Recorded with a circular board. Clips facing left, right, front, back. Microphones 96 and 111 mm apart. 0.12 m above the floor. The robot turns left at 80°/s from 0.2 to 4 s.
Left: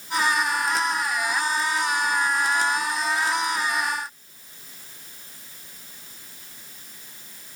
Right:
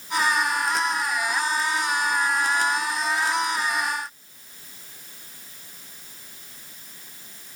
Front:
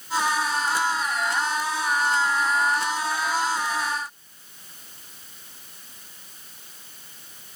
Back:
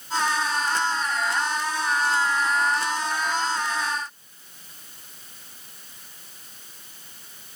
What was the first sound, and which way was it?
Only background noise.